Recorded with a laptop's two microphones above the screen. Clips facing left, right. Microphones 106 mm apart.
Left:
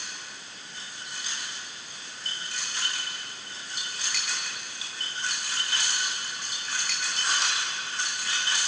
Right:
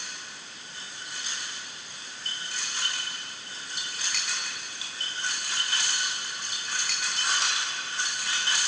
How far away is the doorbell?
I don't hear a doorbell.